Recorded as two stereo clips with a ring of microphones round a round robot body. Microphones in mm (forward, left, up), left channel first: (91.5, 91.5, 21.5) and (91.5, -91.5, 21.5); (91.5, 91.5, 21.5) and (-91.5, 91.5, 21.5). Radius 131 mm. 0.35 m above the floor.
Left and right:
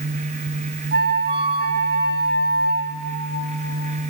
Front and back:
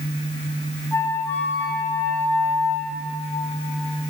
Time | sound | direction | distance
0.9 | a flute | 80° right | 3 m